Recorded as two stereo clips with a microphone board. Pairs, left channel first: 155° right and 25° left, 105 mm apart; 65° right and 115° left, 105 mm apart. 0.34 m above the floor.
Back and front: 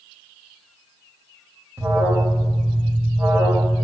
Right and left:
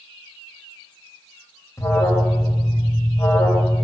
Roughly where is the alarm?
Ahead right.